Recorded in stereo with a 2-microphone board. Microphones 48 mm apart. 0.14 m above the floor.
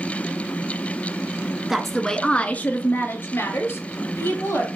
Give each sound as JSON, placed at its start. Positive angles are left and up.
{"t": 1.7, "sound": "a woman speaking", "side_deg": -5, "distance_m": 1.4}